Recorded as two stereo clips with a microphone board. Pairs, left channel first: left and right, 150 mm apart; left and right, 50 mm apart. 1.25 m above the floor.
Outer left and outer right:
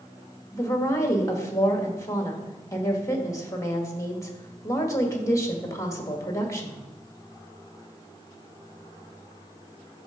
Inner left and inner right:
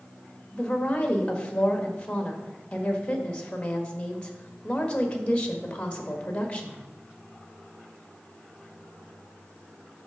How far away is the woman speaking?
About 1.4 m.